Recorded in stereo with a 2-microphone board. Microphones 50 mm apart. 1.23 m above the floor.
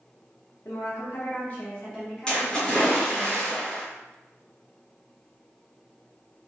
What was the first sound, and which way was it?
A woman speaking, 70° left (ahead or behind).